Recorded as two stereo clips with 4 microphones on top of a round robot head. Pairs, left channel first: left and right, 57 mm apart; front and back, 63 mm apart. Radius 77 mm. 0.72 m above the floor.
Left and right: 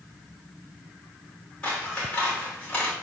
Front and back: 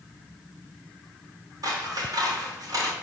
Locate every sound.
1.6 s scissors: 165° left, 2.5 m